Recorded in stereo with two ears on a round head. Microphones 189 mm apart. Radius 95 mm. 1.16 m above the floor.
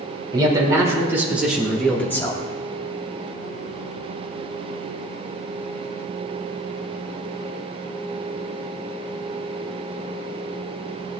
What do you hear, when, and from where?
0.3 s a man speaking: 20° right (ahead or behind), 3.5 m; by 2.4 s 20° left (ahead or behind), 1.9 m